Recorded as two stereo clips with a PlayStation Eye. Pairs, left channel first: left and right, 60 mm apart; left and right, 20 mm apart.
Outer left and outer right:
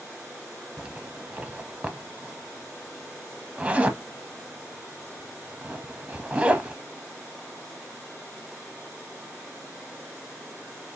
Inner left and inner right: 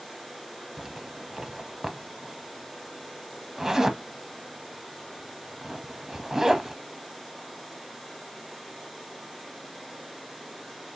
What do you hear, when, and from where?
0.8 s a zipper: 25° right (ahead or behind), 0.6 m